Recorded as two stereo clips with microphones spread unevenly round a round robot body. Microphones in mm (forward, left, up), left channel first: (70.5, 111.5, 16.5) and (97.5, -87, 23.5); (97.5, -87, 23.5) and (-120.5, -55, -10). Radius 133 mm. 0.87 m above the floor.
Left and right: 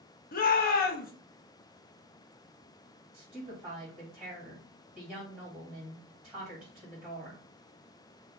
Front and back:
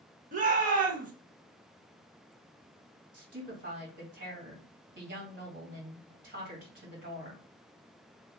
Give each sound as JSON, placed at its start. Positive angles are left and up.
{"t": 0.3, "sound": "a shout", "azimuth_deg": 130, "distance_m": 0.6}
{"t": 3.1, "sound": "a woman speaking", "azimuth_deg": -170, "distance_m": 1.7}